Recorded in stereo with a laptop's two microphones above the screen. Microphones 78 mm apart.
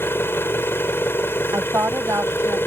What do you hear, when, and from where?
0.0 s an engine running: 30° left (ahead or behind)
1.5 s a woman speaking: 35° right (ahead or behind)